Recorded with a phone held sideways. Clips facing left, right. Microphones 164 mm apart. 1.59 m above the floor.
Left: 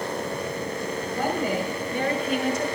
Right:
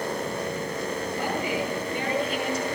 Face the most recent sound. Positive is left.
turn(degrees=60)  # may be behind; listen again after turning